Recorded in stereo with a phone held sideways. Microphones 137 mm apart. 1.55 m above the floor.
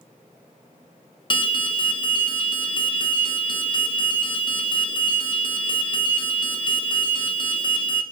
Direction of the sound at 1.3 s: 35° left (ahead or behind).